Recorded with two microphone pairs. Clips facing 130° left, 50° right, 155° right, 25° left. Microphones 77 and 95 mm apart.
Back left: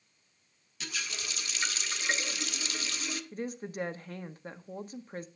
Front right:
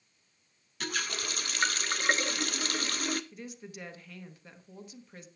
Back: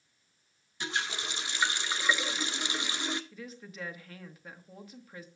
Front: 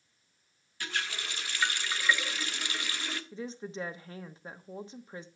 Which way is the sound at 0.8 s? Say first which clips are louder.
Front right 5 dB, back 2 dB; 85° right.